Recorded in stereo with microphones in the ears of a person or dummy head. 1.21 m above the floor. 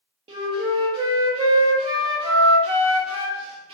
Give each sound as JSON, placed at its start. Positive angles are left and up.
{"t": 0.3, "sound": "a flute", "side_deg": -30, "distance_m": 0.8}